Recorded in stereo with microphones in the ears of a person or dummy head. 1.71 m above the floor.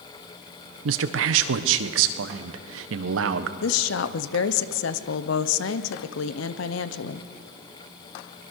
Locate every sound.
0.8 s a man speaking: 85° right, 1.2 m
3.6 s a woman speaking: 70° left (ahead or behind), 1.0 m